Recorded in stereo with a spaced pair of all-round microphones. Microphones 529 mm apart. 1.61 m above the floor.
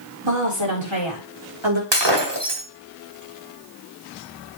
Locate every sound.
0.2 s a woman speaking: 55° right (ahead or behind), 4.5 m; by 1.8 s 60° right (ahead or behind), 4 m
1.9 s breaking glass: 50° right (ahead or behind), 2 m